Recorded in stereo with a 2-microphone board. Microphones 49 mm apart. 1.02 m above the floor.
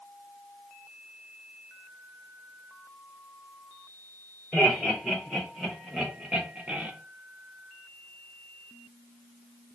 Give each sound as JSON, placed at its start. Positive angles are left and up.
{"t": 4.5, "sound": "laughter", "side_deg": 5, "distance_m": 3.0}